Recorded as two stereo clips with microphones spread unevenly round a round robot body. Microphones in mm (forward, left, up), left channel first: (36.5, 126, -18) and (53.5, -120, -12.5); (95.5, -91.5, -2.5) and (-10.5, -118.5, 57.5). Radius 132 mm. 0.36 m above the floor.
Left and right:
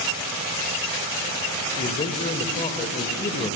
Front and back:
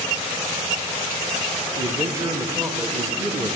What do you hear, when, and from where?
1.8 s a man speaking: 90° left, 0.9 m